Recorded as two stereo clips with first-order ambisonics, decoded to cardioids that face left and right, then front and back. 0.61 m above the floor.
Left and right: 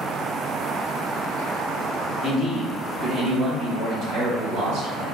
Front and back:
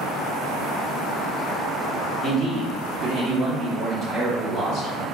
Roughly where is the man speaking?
Behind left.